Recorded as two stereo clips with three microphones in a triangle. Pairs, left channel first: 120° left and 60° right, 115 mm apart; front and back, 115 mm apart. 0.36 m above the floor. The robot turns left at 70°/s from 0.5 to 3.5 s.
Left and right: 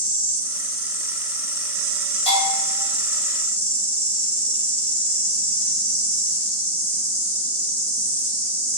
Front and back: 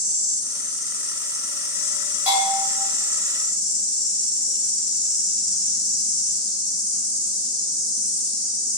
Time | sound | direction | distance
0.0 | an insect | 80° left | 1.5 m
2.3 | a bell | 110° left | 1.4 m